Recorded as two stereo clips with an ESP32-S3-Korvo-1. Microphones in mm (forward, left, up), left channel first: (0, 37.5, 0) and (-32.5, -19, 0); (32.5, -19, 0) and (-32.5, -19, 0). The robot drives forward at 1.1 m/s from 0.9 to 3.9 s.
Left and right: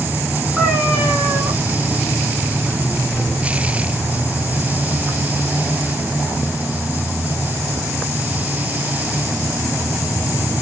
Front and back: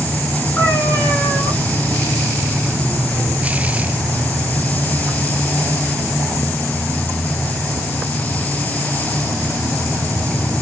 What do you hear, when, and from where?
0.6 s a cat meowing: 35° right, 1.7 m; by 1.5 s 50° right, 1.2 m